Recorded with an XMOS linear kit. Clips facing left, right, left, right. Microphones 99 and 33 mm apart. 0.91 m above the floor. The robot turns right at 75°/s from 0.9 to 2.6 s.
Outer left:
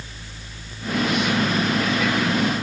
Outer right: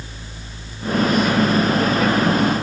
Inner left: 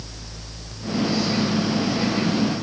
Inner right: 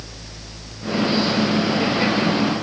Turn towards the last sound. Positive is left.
No sound to turn to.